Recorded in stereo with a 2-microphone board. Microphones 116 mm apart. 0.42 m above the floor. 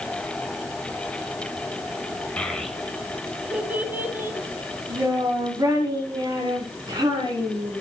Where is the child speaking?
10° left (ahead or behind), 1.2 m; by 7.8 s 40° right (ahead or behind), 3.5 m.